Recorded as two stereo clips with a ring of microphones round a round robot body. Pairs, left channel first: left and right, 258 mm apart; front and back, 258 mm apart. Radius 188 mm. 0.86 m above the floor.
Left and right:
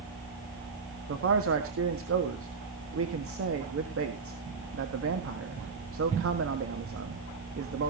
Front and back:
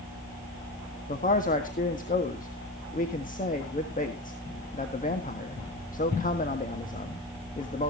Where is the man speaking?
60° right, 1.6 m.